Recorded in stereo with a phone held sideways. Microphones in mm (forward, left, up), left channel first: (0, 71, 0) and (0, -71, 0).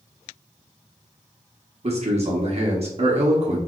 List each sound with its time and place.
1.8 s a man speaking: 45° right (ahead or behind), 1.2 m